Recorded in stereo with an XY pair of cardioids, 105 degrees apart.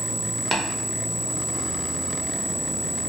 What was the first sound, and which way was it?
Tapping, 20° right.